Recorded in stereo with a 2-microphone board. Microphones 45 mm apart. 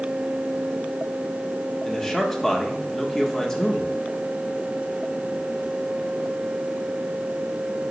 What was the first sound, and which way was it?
A man speaking, 10° left (ahead or behind).